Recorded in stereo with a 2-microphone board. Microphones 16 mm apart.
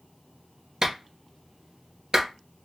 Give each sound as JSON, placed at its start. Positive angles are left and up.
{"t": 0.8, "sound": "a clap", "side_deg": -35, "distance_m": 1.9}